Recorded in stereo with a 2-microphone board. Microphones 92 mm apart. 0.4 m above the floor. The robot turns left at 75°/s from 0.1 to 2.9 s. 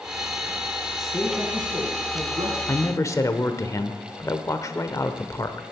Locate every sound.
1.0 s a man speaking: straight ahead, 3 m; by 2.6 s 120° right, 3 m
2.7 s a man speaking: 30° left (ahead or behind), 1.1 m; by 5.6 s 35° left (ahead or behind), 1.1 m